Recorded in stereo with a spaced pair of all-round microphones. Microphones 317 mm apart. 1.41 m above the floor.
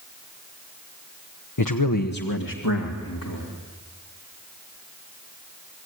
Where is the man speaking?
70° left (ahead or behind), 1.0 m; by 3.5 s 85° left, 3.5 m.